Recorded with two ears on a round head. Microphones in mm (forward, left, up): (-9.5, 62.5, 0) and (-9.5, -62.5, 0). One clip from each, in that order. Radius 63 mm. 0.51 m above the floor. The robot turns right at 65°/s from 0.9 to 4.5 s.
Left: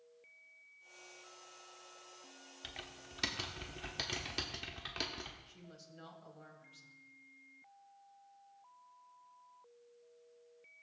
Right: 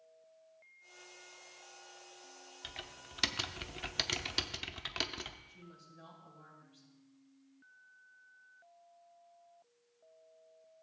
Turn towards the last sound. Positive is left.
turn(degrees=75)  # may be behind; listen again after turning